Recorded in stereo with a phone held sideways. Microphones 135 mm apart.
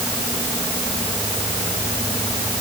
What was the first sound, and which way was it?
Only background noise.